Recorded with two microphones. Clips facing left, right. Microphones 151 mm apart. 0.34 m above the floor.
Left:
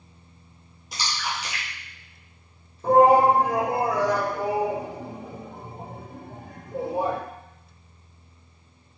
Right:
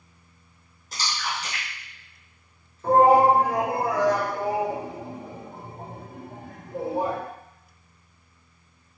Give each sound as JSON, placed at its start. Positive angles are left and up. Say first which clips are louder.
{"t": 0.9, "sound": "a splash", "louder": "even", "side_deg": 15, "distance_m": 2.0}
{"t": 2.8, "sound": "a shout", "louder": "left 1 dB", "side_deg": 15, "distance_m": 1.2}